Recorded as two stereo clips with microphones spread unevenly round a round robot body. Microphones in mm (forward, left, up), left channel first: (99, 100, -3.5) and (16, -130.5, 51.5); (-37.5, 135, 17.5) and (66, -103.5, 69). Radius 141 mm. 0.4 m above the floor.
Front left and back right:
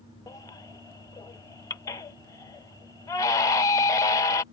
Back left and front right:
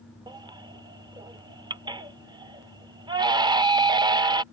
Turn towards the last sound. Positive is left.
turn(degrees=15)